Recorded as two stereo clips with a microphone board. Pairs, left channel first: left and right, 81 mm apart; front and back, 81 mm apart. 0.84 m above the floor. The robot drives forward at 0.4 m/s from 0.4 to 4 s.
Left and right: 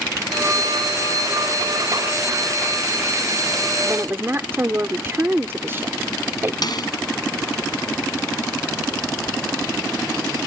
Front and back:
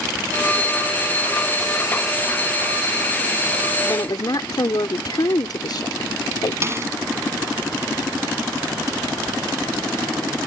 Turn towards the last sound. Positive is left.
turn(degrees=125)